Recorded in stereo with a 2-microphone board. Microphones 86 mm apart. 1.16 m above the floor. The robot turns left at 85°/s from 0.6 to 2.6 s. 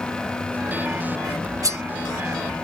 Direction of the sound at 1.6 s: 45° right (ahead or behind).